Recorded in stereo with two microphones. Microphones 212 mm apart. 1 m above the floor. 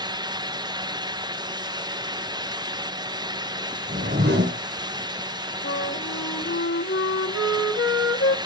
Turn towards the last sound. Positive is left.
turn(degrees=70)  # may be behind; listen again after turning